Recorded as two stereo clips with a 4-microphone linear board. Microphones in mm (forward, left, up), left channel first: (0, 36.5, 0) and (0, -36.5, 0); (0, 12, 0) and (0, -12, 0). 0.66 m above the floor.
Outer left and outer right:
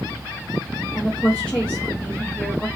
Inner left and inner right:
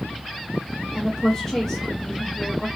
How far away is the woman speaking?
About 0.7 m.